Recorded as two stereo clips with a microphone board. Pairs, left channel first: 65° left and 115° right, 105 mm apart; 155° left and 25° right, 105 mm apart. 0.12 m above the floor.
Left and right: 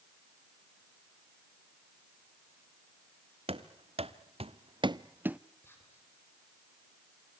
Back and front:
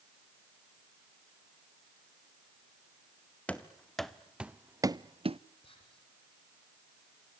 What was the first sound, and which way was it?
Running footsteps, 125° right.